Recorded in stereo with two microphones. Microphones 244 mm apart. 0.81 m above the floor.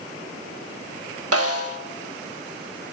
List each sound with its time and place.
1.3 s a snare drum: 75° right (ahead or behind), 0.9 m